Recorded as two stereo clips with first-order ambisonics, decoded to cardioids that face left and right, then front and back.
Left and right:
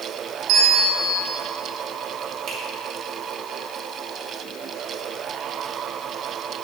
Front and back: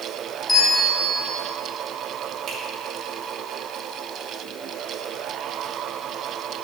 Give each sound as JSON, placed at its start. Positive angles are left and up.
{"t": 0.5, "sound": "a bell", "azimuth_deg": -80, "distance_m": 0.8}
{"t": 2.5, "sound": "a finger snap", "azimuth_deg": -130, "distance_m": 2.0}